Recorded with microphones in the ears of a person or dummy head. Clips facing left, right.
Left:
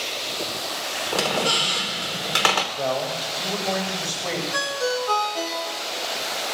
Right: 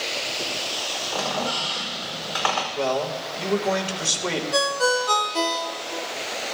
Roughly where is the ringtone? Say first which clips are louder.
Right 4 dB; right.